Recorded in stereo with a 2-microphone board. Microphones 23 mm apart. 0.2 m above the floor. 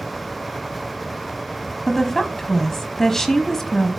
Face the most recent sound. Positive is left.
turn(degrees=20)  # may be behind; listen again after turning